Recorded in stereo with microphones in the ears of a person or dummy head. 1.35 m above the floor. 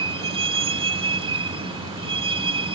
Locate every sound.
0.0 s a vehicle: 35° right (ahead or behind)